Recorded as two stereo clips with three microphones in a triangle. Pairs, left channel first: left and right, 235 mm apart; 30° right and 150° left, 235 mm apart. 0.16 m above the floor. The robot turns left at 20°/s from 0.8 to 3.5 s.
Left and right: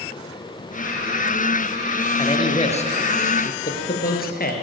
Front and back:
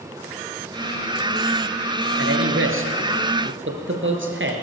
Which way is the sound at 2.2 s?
160° left.